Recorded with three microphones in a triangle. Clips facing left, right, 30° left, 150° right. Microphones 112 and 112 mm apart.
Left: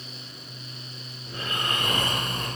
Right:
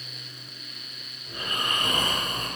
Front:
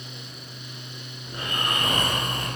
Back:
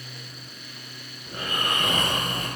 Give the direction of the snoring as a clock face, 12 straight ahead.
7 o'clock.